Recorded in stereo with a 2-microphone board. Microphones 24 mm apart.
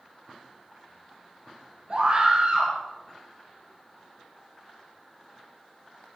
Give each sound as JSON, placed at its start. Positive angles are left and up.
{"t": 1.9, "sound": "a scream", "side_deg": -45, "distance_m": 4.0}